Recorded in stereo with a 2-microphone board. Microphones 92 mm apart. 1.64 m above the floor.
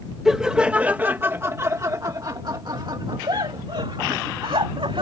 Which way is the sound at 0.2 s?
5° right (ahead or behind).